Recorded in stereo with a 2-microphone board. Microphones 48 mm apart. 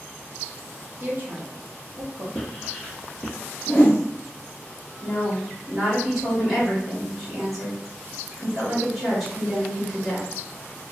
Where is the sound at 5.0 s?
Centre (ahead or behind), 1.3 m.